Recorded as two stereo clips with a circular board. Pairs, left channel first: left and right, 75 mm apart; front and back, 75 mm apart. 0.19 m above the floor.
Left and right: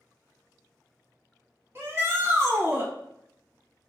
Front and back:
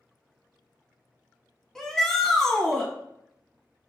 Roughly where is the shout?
Right.